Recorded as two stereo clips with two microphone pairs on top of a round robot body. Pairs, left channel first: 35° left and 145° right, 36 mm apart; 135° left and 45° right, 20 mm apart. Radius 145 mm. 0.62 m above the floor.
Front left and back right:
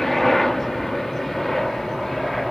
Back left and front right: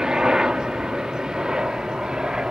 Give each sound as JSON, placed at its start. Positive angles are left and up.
{"t": 0.0, "sound": "a helicopter", "azimuth_deg": -55}